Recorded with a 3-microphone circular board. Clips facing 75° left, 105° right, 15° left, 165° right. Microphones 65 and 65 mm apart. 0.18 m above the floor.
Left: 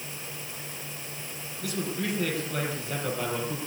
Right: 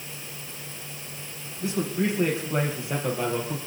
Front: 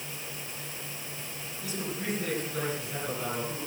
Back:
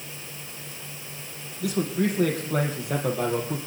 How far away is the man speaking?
About 5 m.